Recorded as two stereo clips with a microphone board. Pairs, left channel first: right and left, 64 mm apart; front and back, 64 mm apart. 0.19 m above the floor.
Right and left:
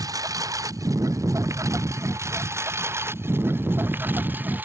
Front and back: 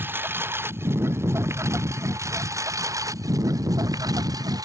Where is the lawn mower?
120° left; by 4.7 s 155° left.